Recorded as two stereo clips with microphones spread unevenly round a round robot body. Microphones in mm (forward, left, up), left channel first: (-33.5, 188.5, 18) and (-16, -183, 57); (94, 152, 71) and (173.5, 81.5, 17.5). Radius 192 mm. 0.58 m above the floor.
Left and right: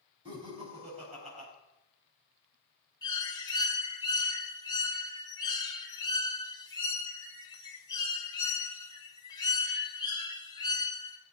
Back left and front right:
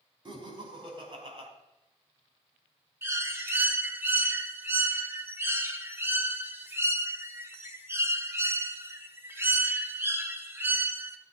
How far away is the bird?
About 1.8 m.